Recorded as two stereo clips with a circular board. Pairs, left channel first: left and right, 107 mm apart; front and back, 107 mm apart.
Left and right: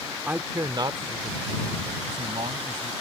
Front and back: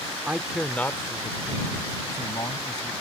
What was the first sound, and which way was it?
A man speaking, 130° right.